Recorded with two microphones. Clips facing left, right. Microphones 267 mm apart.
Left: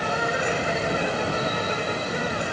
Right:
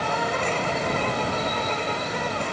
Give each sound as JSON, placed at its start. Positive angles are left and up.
{"t": 0.0, "sound": "an insect", "side_deg": 15}